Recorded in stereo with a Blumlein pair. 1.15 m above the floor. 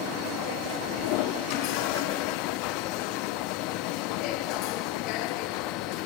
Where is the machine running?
40° left, 1.2 m.